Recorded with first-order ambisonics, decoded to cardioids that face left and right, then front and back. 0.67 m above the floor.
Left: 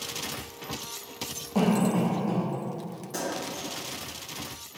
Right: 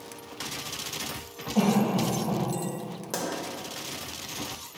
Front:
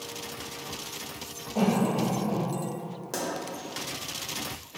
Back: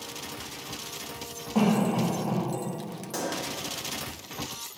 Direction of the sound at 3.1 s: 65° right.